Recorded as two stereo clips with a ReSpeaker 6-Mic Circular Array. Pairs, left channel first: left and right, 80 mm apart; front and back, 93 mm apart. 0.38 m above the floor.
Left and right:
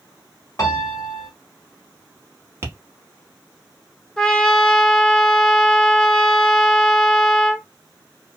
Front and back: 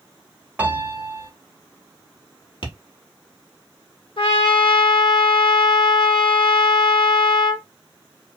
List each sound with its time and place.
0.6 s a piano: 115° left, 1.0 m
2.6 s tapping: 30° right, 0.9 m
4.2 s a trumpet: 10° left, 0.9 m